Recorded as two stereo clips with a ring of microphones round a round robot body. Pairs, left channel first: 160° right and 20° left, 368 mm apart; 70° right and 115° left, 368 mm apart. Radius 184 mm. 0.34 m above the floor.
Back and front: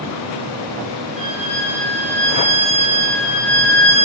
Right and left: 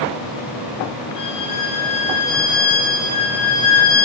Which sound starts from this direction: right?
A violin, at 1.2 s.